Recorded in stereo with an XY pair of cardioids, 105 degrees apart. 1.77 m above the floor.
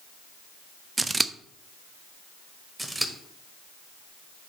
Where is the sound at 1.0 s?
25° right, 0.5 m.